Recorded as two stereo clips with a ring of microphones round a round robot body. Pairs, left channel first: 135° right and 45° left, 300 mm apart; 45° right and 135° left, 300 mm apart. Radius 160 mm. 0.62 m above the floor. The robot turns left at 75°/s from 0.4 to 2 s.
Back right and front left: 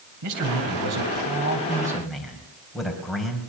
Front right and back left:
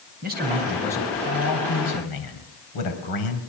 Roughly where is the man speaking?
Left.